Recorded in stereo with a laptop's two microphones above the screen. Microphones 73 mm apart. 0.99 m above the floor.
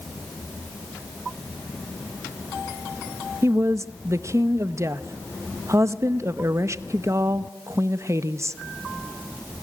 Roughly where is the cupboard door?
No cupboard door in this recording.